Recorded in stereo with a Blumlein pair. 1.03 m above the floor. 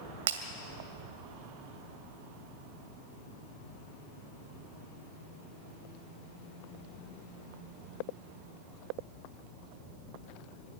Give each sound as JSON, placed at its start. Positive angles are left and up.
{"t": 0.3, "sound": "breaking glass", "azimuth_deg": -60, "distance_m": 2.0}